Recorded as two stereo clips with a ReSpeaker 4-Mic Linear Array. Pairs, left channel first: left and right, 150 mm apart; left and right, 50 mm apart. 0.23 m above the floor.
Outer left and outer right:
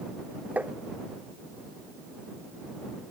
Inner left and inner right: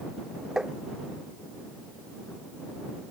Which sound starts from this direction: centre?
Tapping, at 0.6 s.